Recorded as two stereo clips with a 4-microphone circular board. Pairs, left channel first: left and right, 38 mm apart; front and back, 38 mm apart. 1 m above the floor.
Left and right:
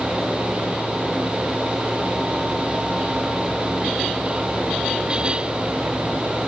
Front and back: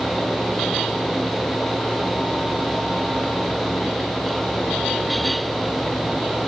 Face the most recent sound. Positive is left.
No sound to turn to.